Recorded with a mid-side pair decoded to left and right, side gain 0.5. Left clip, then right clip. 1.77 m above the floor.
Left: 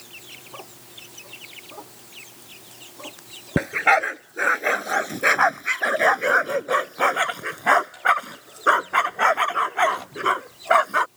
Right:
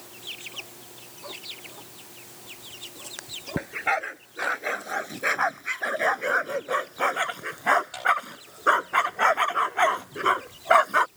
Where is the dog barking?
50° left; by 11.1 s 5° left.